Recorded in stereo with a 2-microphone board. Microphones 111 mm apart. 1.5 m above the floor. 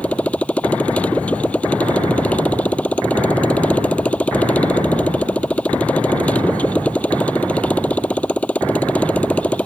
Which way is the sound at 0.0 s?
10° left (ahead or behind).